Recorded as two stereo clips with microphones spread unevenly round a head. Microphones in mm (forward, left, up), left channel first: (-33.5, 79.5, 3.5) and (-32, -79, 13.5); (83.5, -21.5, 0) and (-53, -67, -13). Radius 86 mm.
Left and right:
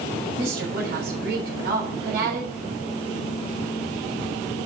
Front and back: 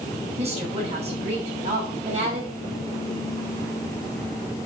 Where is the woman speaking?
115° right, 6.5 m.